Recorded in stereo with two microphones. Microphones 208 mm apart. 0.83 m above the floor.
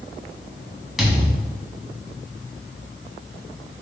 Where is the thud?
Centre (ahead or behind), 2.5 m.